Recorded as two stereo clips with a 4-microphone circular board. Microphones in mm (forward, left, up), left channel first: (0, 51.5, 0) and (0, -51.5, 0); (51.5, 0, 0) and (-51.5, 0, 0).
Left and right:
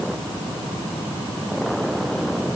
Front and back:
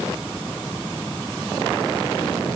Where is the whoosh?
I don't hear a whoosh.